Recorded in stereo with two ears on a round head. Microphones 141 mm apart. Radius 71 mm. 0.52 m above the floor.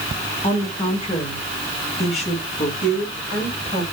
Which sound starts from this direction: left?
A woman speaking, at 0.4 s.